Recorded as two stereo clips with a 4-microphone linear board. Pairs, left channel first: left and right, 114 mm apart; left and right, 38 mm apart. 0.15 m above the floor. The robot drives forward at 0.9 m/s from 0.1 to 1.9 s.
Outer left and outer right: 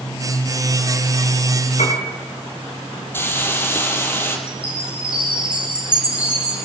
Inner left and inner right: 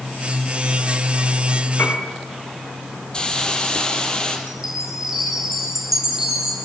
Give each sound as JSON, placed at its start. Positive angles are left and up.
{"t": 1.8, "sound": "a piano", "side_deg": 85, "distance_m": 7.5}
{"t": 3.1, "sound": "a hiss", "side_deg": 20, "distance_m": 4.0}
{"t": 4.5, "sound": "a chime", "side_deg": -10, "distance_m": 7.5}